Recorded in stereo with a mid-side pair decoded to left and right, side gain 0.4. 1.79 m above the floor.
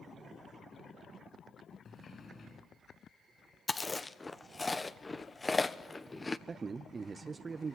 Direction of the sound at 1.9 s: 45° left.